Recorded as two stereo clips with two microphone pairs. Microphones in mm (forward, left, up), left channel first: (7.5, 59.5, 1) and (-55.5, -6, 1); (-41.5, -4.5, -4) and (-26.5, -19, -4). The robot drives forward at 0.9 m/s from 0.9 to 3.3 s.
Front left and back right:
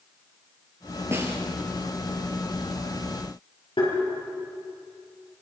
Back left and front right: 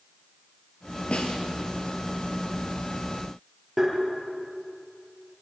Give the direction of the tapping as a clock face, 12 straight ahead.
11 o'clock.